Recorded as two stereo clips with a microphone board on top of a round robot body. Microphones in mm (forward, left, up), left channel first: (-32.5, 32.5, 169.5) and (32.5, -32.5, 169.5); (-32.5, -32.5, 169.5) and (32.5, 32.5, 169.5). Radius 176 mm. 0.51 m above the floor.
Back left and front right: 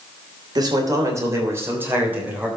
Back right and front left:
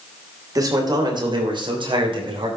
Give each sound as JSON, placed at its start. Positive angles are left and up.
{"t": 0.6, "sound": "a man speaking", "azimuth_deg": -5, "distance_m": 3.0}